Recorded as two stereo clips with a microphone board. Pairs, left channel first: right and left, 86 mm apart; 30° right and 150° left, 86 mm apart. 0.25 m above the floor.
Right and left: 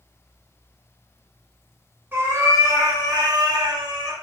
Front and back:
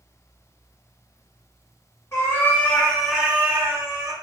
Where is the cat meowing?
25° left, 0.8 m; by 4.1 s 115° left, 0.7 m.